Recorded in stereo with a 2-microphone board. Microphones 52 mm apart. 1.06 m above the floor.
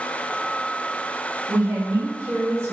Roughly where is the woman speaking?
Right.